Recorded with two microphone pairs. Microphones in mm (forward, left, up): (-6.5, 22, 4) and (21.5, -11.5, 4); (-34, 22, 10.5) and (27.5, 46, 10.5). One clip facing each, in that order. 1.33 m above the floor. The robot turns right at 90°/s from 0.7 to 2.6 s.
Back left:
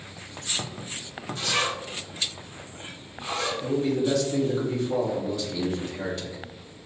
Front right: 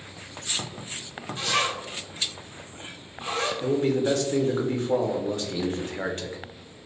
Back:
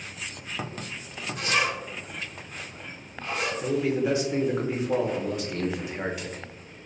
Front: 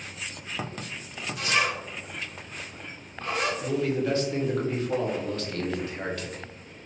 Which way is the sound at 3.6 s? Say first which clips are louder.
Front right 2 dB, back 1 dB; 85° right.